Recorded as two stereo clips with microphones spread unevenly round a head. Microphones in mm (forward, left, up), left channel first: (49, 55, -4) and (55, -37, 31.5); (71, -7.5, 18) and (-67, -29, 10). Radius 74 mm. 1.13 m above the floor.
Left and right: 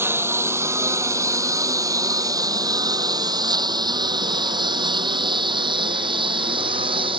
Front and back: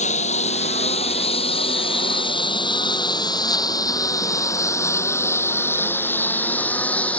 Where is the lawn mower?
25° right; by 7.2 s 70° right.